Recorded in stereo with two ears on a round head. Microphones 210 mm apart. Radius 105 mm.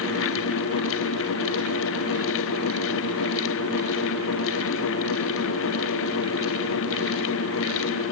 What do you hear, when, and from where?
Only background noise.